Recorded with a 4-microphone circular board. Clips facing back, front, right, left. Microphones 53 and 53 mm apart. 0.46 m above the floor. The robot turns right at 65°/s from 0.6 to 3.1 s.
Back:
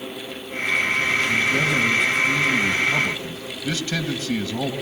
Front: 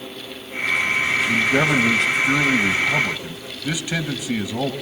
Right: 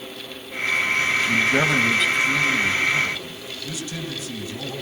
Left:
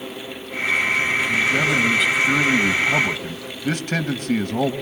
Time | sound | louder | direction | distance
1.3 | a man speaking | front 2 dB, even | 40° right | 2.5 m